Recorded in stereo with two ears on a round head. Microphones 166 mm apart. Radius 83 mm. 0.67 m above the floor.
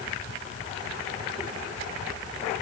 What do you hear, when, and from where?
Only background noise.